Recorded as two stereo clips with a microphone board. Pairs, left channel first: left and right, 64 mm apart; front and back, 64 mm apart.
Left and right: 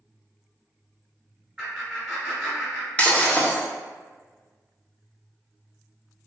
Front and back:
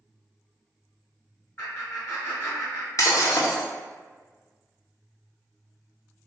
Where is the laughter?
25° right, 1.5 m.